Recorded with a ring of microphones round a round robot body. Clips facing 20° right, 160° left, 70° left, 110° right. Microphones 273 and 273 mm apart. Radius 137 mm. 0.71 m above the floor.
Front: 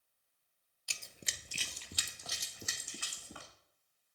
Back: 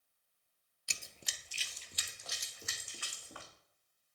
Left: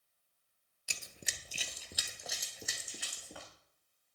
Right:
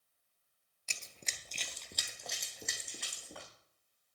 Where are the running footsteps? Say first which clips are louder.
Front 2 dB, left 2 dB; 130° left, 0.7 m; by 3.5 s 20° right, 3 m.